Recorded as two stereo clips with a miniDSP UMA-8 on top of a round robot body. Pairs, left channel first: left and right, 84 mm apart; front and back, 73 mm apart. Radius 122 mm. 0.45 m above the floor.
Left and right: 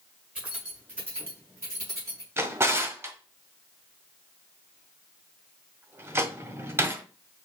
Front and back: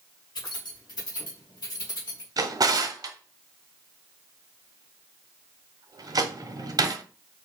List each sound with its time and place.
0.3 s keys jangling: 20° right, 2.5 m; by 2.3 s 35° right, 4 m
2.4 s a drawer: 150° right, 1.1 m